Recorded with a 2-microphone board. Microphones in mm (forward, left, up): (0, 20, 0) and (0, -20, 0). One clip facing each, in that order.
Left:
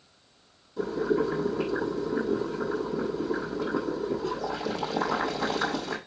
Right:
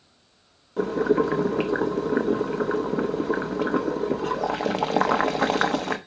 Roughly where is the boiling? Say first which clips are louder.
Right 5 dB; right.